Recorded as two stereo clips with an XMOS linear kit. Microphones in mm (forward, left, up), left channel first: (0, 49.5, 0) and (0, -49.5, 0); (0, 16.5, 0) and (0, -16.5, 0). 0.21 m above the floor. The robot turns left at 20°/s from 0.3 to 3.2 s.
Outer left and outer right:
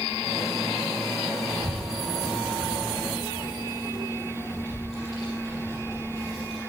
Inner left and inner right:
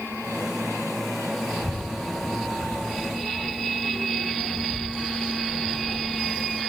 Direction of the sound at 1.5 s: 5° left (ahead or behind).